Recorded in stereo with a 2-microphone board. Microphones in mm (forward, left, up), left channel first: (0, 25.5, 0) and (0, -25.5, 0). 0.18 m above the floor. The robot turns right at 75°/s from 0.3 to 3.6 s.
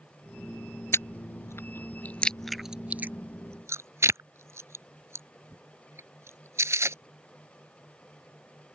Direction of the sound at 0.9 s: 55° left (ahead or behind).